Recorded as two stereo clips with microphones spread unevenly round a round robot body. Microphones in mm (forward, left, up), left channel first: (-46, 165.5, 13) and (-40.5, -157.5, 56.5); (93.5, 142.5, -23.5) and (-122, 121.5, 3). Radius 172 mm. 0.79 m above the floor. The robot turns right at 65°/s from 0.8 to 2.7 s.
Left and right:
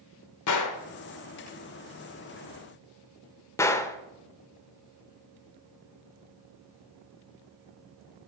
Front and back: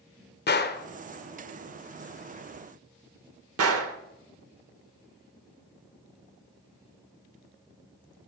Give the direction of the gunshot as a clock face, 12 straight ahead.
10 o'clock.